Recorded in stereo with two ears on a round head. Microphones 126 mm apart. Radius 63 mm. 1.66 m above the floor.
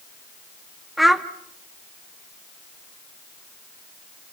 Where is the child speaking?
Centre (ahead or behind), 1.4 m.